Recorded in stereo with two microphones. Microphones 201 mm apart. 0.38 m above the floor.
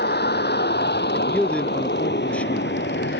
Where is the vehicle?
55° left (ahead or behind); by 3.2 s 65° left (ahead or behind).